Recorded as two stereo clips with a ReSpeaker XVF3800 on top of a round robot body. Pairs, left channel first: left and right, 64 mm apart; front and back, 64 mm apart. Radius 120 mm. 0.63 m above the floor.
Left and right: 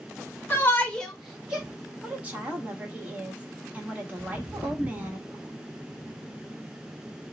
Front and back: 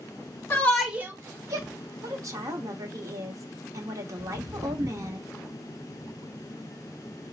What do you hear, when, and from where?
0.5 s a shout: 45° left, 0.9 m; by 1.7 s 165° right, 1.3 m
2.0 s a woman speaking: 155° right, 1.1 m
4.2 s footsteps: 175° right, 1.4 m; by 5.2 s 145° right, 0.7 m